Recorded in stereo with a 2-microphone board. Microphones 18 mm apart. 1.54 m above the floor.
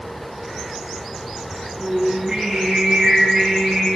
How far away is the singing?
About 9 m.